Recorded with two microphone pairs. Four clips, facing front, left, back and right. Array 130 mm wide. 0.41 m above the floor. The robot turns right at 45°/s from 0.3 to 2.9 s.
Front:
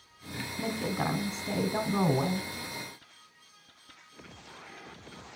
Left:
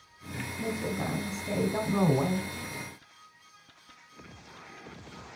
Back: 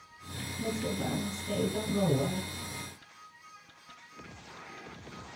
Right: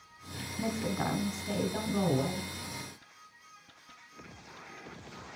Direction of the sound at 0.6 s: 25° right.